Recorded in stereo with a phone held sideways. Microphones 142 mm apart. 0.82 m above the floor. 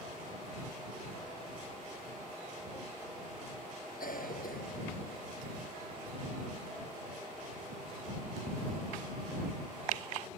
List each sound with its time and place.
4.0 s a cough: 85° left